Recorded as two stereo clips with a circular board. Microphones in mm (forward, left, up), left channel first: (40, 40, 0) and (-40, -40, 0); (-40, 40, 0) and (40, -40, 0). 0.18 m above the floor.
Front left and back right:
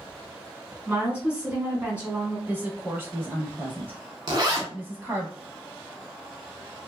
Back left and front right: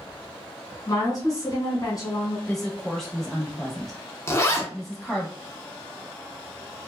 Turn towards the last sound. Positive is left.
turn(degrees=-170)